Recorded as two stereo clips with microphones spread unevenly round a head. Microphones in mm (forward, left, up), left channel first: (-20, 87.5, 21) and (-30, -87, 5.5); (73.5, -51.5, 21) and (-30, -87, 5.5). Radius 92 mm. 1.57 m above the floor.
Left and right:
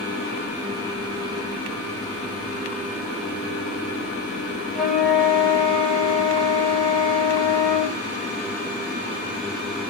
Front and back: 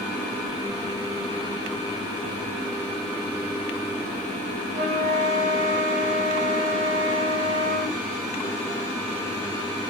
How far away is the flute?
About 1.4 m.